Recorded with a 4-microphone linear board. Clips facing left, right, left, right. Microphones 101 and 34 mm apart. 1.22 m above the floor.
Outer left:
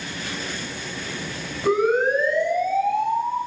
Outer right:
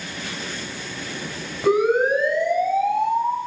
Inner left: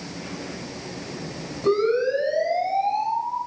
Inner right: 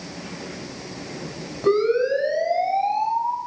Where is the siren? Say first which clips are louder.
Outer right 2 dB, inner right 2 dB; 15° right (ahead or behind), 9.5 m.